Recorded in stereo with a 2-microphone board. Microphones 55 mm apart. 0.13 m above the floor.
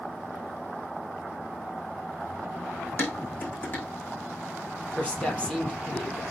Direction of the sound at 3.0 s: 35° left (ahead or behind).